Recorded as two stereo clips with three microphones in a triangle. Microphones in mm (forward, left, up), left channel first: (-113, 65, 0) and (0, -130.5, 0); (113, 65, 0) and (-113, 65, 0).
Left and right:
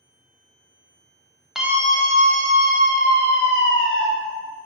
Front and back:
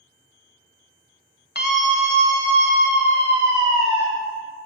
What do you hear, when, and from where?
1.6 s a scream: 25° left, 1.4 m; by 4.1 s 35° right, 4 m